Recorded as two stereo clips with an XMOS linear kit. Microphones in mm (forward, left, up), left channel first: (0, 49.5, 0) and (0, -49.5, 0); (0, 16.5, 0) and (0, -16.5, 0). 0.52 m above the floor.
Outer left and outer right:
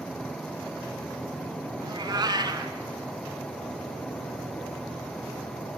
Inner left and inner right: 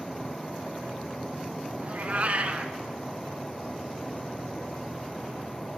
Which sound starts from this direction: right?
A cat meowing, at 1.8 s.